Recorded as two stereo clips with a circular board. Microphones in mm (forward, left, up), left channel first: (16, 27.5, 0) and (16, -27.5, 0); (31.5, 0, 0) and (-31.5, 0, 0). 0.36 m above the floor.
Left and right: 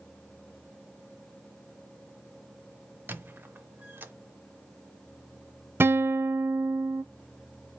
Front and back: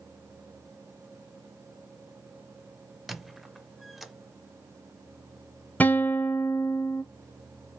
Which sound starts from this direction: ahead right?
A guitar, at 5.8 s.